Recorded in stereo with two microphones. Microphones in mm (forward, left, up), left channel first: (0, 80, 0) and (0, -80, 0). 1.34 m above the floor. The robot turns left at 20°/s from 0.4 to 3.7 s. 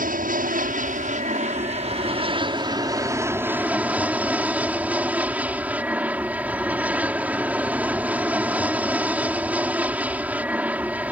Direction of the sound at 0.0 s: 105° right.